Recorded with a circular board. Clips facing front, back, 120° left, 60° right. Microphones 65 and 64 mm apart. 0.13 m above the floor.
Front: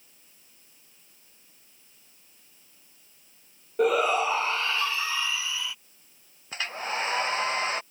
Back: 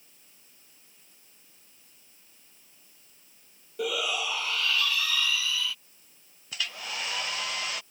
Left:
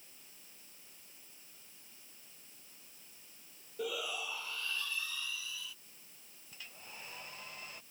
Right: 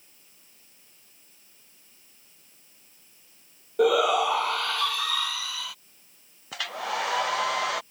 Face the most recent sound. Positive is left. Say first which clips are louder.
# front 5 dB, right 23 dB
turn(degrees=-55)